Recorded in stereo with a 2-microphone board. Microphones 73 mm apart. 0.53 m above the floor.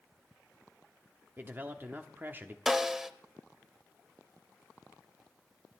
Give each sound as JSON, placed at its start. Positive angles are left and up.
{"t": 1.4, "sound": "a man speaking", "side_deg": -30, "distance_m": 1.1}
{"t": 2.7, "sound": "a snare drum", "side_deg": -5, "distance_m": 0.7}